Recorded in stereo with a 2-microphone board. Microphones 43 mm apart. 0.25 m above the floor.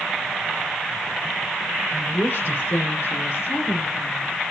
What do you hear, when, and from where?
1.9 s a woman speaking: 55° left (ahead or behind), 6.5 m; by 4.3 s 45° left (ahead or behind), 7.5 m